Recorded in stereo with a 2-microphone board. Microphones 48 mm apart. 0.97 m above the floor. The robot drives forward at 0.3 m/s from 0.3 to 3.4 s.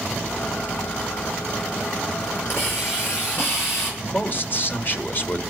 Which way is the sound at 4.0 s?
45° left (ahead or behind).